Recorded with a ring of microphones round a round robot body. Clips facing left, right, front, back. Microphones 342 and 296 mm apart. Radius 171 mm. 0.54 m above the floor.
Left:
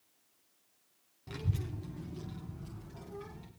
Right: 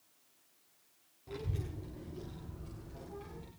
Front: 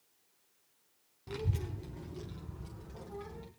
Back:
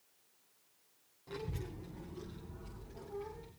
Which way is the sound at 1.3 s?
40° left.